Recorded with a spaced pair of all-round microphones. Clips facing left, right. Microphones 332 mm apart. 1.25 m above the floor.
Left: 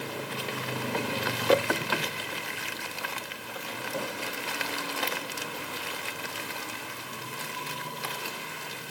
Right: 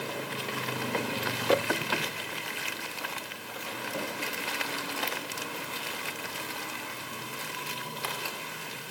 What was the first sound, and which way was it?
Only background noise.